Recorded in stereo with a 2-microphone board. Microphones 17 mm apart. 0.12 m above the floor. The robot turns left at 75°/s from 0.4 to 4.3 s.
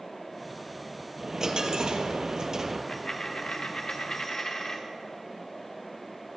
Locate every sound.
1.2 s a dropped coin: 30° right, 1.3 m; by 2.8 s 150° right, 1.3 m
2.9 s a dropped coin: 150° left, 1.7 m; by 4.8 s 45° left, 1.7 m